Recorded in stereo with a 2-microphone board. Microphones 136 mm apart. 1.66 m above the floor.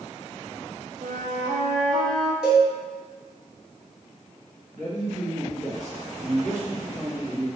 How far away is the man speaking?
About 1.3 m.